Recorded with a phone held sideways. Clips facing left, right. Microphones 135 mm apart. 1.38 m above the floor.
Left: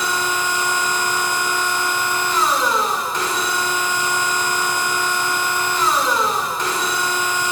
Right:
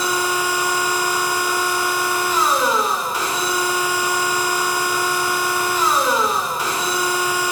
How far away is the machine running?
About 2.5 m.